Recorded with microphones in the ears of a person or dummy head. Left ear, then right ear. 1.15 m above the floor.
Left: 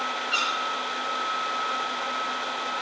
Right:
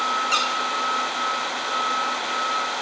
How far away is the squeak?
About 5.5 m.